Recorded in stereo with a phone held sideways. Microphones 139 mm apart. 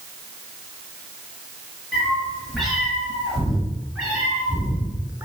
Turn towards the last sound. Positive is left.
turn(degrees=-15)  # may be behind; listen again after turning